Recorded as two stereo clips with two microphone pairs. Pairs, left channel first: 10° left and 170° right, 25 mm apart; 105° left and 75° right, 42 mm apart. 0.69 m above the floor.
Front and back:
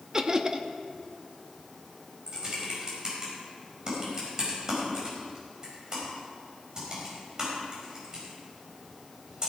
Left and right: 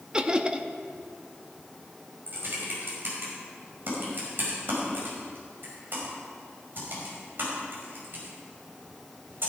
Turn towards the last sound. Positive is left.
turn(degrees=-110)